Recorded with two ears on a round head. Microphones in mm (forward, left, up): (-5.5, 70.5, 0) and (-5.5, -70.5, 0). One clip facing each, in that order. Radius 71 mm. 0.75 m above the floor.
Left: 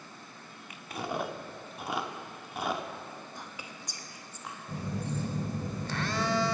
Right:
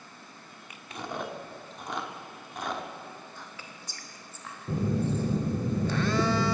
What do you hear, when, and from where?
0.9 s chewing: 5° left (ahead or behind), 0.8 m
3.4 s whispering: 15° left (ahead or behind), 1.0 m
4.7 s a phone buzzing: 70° right (ahead or behind), 0.6 m